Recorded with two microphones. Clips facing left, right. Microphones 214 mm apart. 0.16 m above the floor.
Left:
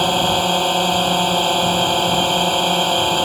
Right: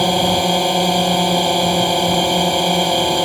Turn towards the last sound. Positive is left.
turn(degrees=-10)  # may be behind; listen again after turning